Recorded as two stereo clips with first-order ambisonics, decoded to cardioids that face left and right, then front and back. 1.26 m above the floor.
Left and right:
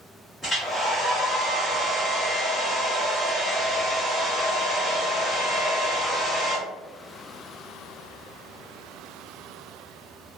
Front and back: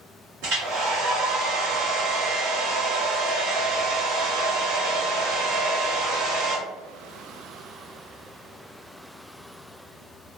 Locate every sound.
0.4 s a hair dryer: 175° left, 1.5 m